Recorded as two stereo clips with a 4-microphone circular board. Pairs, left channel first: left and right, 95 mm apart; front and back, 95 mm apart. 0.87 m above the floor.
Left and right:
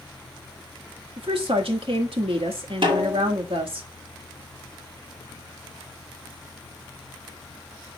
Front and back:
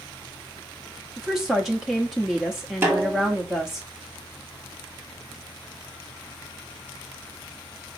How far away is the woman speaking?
About 1.2 m.